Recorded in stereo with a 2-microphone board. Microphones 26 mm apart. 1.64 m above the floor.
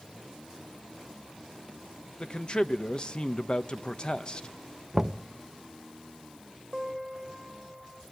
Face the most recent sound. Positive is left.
turn(degrees=-15)  # may be behind; listen again after turning